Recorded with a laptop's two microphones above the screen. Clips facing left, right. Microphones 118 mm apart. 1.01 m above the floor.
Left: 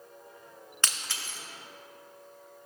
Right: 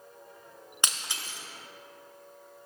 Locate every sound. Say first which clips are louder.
0.8 s breaking glass: right 1 dB; 15° right (ahead or behind), 0.7 m